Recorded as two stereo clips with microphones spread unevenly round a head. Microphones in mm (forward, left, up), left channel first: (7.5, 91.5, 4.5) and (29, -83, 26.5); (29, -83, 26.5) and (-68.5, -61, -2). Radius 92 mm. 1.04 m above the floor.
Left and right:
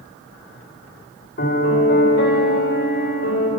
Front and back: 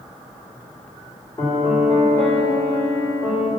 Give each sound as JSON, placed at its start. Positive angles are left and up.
{"t": 1.4, "sound": "a piano", "azimuth_deg": 60, "distance_m": 3.0}